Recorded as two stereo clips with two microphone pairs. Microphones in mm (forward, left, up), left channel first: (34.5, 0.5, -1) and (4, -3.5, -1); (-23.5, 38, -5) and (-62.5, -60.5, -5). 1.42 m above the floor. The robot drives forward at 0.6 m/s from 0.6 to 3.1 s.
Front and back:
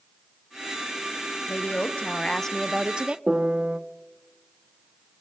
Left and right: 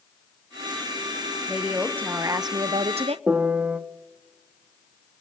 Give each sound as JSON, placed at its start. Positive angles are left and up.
{"t": 1.5, "sound": "a woman speaking", "azimuth_deg": -30, "distance_m": 0.9}
{"t": 3.3, "sound": "a piano", "azimuth_deg": -160, "distance_m": 0.9}